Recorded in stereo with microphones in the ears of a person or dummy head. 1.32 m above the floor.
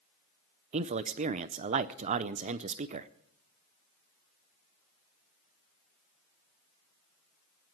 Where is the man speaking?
45° right (ahead or behind), 0.6 m.